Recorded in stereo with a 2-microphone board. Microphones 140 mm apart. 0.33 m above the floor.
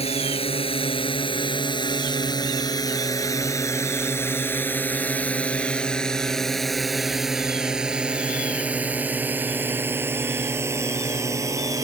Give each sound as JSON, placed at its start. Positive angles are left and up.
{"t": 0.0, "sound": "a drone", "side_deg": 45}